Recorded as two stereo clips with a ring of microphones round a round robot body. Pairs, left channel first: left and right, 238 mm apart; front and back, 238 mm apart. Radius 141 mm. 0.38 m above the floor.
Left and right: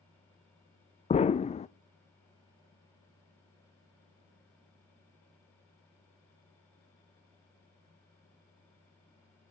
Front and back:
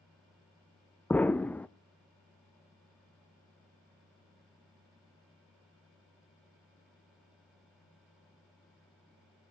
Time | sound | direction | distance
1.1 | an explosion | 75° left | 0.5 m